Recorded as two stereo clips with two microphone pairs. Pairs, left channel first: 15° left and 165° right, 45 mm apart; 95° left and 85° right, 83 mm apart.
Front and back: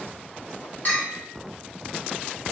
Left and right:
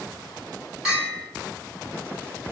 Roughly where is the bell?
Ahead.